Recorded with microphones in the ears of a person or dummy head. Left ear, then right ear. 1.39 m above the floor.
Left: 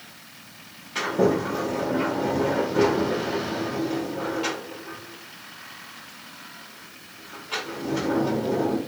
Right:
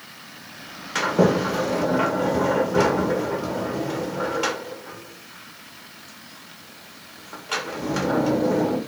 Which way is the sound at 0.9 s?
55° right (ahead or behind).